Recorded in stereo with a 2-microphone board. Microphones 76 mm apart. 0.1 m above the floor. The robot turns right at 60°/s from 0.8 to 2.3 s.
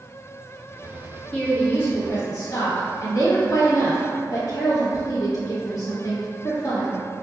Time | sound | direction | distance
1.3 | a woman speaking | 20° left | 1.3 m